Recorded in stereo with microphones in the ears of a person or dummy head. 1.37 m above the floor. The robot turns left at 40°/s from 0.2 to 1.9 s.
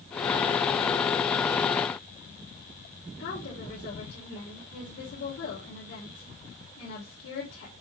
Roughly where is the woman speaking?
Left.